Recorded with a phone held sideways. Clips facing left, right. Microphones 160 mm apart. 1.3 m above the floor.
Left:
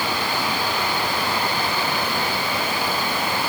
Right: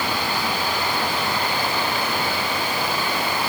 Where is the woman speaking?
No woman speaking in this recording.